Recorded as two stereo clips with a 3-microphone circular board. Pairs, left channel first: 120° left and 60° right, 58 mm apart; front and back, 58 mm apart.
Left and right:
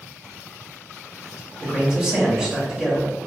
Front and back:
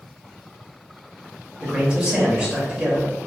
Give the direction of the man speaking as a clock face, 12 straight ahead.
4 o'clock.